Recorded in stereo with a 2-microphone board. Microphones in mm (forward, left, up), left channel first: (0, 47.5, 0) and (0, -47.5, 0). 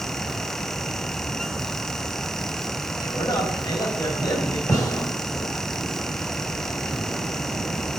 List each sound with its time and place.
3.0 s a man speaking: 50° left (ahead or behind), 4.5 m
4.7 s a gunshot: 40° left (ahead or behind), 4.5 m